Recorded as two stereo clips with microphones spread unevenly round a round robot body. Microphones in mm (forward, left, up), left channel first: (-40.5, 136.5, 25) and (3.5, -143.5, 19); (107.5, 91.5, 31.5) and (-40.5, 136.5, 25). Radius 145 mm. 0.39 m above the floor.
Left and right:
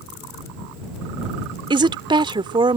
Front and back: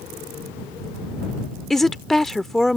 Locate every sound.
1.7 s a woman speaking: 110° right